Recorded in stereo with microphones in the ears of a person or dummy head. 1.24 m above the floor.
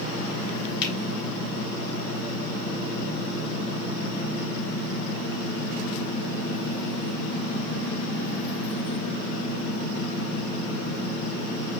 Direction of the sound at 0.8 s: 60° left (ahead or behind).